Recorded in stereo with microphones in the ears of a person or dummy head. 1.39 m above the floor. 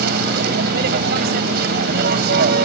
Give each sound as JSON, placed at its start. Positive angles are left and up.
{"t": 0.0, "sound": "a vehicle", "side_deg": -55}